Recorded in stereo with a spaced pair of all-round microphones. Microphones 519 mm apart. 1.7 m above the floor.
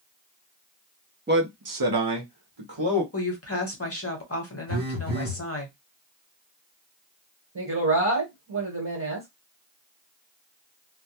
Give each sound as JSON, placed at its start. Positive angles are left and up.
{"t": 1.3, "sound": "a man speaking", "side_deg": -20, "distance_m": 0.6}
{"t": 3.1, "sound": "a woman speaking", "side_deg": 25, "distance_m": 0.9}
{"t": 4.7, "sound": "a phone buzzing", "side_deg": -60, "distance_m": 1.1}
{"t": 7.5, "sound": "a woman speaking", "side_deg": -40, "distance_m": 1.1}